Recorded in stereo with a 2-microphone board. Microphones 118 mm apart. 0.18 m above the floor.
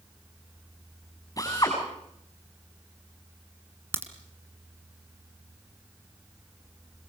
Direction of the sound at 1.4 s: 30° left (ahead or behind).